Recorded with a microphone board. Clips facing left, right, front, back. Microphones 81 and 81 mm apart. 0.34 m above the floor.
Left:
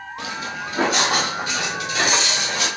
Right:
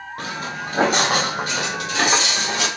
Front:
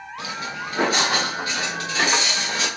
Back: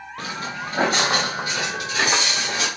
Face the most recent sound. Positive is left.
turn(degrees=-100)